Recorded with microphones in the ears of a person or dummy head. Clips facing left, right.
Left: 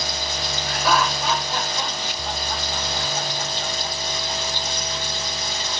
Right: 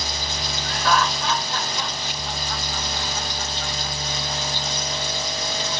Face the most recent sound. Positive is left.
turn(degrees=30)  # may be behind; listen again after turning